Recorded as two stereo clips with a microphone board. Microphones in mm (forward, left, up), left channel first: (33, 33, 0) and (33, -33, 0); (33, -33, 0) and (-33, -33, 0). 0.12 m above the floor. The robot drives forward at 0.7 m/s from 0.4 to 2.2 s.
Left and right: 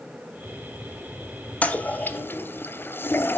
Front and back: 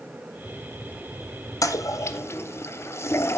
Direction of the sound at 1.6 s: 20° left.